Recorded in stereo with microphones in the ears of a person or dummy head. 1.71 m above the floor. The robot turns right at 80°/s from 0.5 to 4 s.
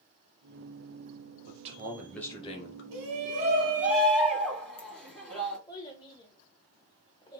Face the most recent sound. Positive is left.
turn(degrees=15)  # may be behind; listen again after turning